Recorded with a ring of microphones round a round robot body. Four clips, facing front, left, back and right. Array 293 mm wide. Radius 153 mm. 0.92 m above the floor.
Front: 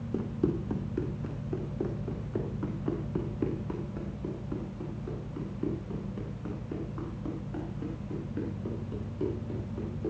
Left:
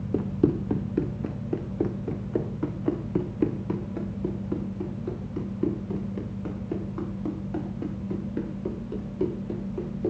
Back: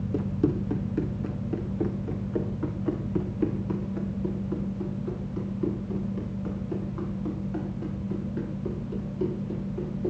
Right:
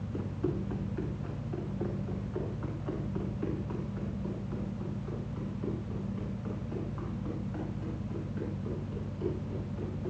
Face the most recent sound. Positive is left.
turn(degrees=90)